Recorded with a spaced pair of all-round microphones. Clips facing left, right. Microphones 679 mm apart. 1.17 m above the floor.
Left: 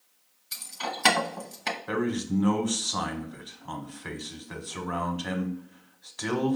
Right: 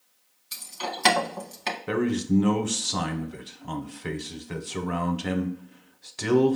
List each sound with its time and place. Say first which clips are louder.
0.5 s keys jangling: right 2 dB; 15° right (ahead or behind), 0.6 m
1.9 s a man speaking: right 4 dB; 55° right (ahead or behind), 0.7 m